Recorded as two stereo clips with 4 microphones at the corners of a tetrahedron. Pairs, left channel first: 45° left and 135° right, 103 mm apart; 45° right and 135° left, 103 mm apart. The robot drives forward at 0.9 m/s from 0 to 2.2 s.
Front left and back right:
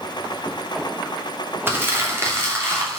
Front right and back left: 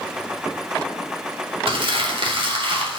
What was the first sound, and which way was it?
Crumpling, 160° left.